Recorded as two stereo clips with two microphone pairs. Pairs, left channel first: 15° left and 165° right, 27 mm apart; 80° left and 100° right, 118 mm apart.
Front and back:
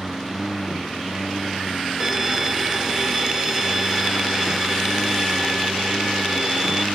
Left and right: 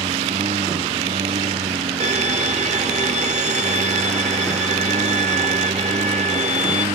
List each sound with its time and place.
0.0 s a lawn mower: 85° right
2.0 s a violin: 90° right